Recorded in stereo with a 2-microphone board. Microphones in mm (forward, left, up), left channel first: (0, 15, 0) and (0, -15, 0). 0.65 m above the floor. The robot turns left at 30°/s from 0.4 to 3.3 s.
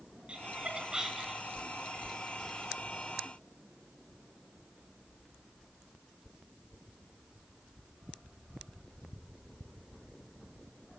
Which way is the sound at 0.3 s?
40° right (ahead or behind).